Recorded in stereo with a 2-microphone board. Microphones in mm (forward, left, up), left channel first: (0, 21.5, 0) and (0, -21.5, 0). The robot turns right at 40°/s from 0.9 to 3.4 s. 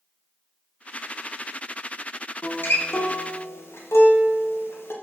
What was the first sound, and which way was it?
A guitar, 50° left (ahead or behind).